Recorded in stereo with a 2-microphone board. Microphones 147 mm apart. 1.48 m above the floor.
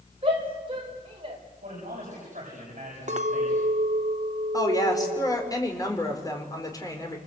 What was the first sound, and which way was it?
A shout, 40° right (ahead or behind).